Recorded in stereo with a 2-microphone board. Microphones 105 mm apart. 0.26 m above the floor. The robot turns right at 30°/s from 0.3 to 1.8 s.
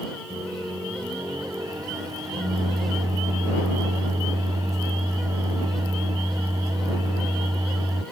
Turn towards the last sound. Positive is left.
turn(degrees=-55)